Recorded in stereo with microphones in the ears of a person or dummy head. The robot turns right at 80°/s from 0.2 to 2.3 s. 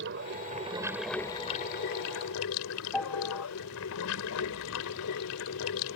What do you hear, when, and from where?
0.0 s running water: 70° right; by 6.0 s 95° left
2.9 s a piano: centre (ahead or behind)